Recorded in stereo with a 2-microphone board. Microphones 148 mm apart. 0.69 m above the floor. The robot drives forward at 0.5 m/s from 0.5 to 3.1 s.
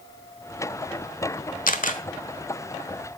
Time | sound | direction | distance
1.7 | a camera shutter | 65° left (ahead or behind) | 1.3 m